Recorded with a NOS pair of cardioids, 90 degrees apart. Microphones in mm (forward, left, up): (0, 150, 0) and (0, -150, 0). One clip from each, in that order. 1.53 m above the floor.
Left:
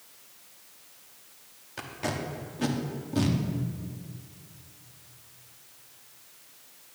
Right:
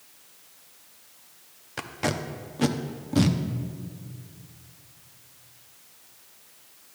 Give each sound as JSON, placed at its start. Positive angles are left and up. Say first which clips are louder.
{"t": 1.8, "sound": "tape being pulled", "louder": "right 4 dB", "azimuth_deg": -25, "distance_m": 0.7}